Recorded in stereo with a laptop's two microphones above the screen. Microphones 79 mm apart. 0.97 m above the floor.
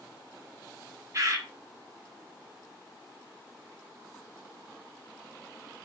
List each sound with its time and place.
1.1 s a bird: 45° right (ahead or behind), 0.8 m